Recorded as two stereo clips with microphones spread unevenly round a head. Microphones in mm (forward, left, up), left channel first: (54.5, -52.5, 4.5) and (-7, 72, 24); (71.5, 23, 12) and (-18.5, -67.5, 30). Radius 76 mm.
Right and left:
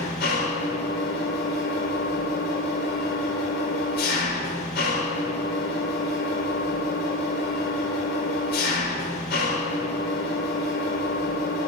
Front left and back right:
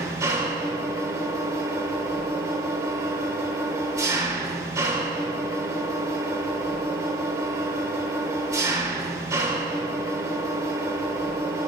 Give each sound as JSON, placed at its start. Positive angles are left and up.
{"t": 0.0, "sound": "an engine running", "azimuth_deg": -70, "distance_m": 3.5}